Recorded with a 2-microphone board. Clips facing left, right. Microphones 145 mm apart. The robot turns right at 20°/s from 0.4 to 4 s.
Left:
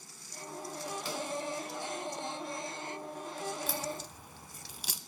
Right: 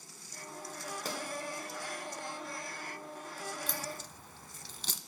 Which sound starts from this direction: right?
A pop, at 1.1 s.